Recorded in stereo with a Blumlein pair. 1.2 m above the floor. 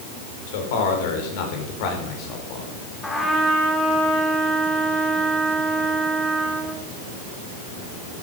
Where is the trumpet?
5° left, 3.5 m.